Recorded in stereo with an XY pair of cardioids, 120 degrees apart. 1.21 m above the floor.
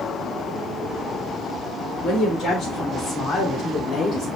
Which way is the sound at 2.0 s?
65° left.